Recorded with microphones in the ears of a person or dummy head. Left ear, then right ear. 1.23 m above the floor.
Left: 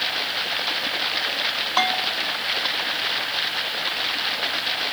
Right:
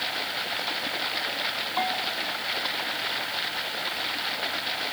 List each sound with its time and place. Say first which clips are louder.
0.0 s running water: left 5 dB; 10° left (ahead or behind)
1.8 s a bell: left 7 dB; 75° left (ahead or behind)